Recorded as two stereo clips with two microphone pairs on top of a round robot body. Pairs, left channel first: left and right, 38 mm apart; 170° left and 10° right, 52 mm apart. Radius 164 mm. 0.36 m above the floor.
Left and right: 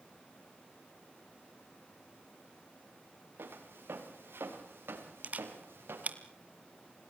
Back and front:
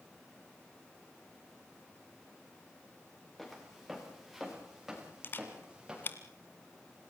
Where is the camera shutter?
140° right, 2 m.